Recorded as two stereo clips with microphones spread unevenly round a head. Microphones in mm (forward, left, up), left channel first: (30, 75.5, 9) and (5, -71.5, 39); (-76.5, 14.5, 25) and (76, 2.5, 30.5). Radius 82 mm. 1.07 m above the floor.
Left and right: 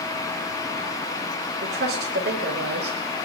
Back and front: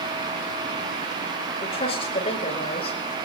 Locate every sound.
1.6 s a woman speaking: 130° right, 5 m